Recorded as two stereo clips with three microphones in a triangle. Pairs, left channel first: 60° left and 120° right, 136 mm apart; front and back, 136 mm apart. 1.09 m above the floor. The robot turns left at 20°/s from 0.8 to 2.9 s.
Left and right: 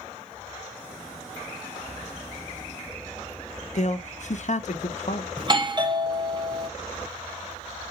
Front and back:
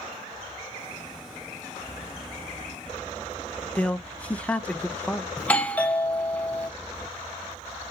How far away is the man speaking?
About 0.7 m.